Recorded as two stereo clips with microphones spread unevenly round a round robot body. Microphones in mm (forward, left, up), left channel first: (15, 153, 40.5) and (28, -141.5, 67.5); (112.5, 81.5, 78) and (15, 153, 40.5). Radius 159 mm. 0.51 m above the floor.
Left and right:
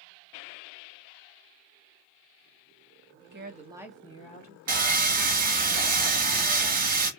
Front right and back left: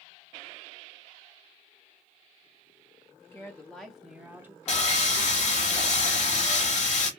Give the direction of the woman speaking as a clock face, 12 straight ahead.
4 o'clock.